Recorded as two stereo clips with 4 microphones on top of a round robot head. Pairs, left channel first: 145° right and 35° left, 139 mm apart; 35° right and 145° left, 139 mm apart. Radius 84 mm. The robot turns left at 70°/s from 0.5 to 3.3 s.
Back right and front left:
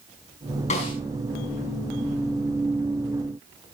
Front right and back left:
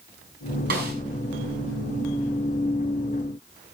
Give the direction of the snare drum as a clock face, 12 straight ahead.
6 o'clock.